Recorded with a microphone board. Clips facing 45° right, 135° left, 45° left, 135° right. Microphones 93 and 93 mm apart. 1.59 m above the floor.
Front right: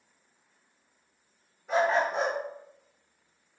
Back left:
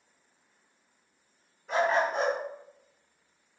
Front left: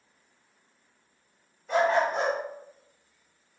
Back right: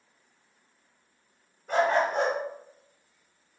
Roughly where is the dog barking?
Behind right.